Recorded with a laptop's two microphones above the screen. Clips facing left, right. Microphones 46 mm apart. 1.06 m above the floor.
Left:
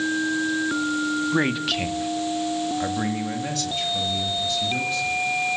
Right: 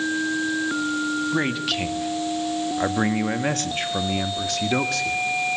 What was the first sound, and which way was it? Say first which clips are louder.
A man speaking: left 1 dB; 10° left (ahead or behind).